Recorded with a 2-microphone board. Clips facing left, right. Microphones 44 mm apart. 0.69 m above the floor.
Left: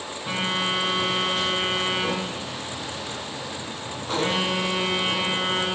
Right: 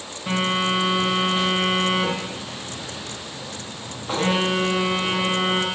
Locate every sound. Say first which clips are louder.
0.3 s a phone buzzing: right 4 dB; 20° right (ahead or behind), 3.5 m